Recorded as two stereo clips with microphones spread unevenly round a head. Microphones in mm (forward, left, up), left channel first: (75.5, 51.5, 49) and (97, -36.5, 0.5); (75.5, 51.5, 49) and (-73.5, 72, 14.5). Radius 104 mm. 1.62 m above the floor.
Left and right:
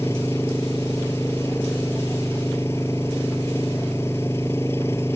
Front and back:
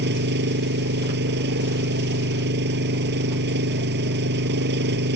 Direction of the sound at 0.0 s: Straight behind.